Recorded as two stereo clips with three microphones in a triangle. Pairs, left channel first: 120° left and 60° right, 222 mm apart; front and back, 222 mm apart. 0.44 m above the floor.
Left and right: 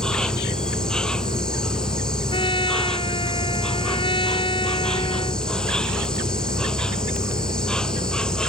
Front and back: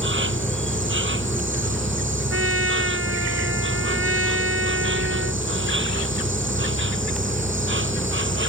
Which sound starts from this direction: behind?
A trumpet, at 2.3 s.